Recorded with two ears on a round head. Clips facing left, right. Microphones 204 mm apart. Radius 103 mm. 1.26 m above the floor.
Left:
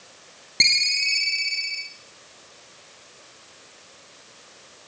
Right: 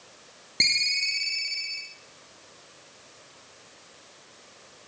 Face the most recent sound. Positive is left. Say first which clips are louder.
# left 1 dB
turn(degrees=0)  # may be behind; listen again after turning